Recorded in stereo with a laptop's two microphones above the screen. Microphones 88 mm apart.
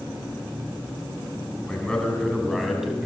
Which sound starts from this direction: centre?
A man speaking, at 1.7 s.